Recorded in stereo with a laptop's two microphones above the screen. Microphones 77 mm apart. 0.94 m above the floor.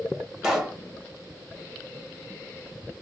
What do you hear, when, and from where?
0.4 s a pop: 5° right (ahead or behind), 1.3 m